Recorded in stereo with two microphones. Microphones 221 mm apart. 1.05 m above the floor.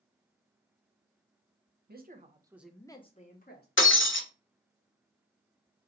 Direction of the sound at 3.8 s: 65° left (ahead or behind).